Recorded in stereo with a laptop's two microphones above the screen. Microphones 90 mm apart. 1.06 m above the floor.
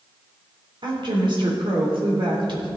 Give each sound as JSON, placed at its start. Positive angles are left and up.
{"t": 0.8, "sound": "a woman speaking", "side_deg": -60, "distance_m": 3.5}